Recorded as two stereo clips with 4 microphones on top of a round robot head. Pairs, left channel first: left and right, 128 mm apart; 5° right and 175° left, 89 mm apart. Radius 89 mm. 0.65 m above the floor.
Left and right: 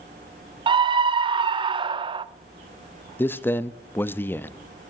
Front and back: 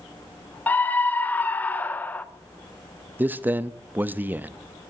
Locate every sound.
0.7 s a scream: 70° right, 0.8 m
3.2 s a man speaking: 140° left, 0.6 m